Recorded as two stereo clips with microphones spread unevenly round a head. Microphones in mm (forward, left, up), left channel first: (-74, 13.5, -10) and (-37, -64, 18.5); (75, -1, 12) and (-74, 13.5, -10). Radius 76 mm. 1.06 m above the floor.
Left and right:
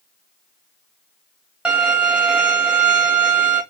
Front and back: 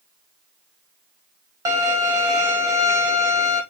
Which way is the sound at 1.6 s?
115° right.